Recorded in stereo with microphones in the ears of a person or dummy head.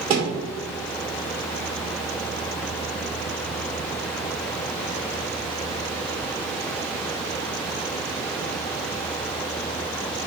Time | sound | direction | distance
0.1 | a thud | 45° right (ahead or behind) | 1.8 m